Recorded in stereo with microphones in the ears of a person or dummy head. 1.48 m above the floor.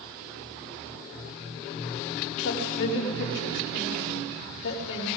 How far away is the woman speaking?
About 4.5 m.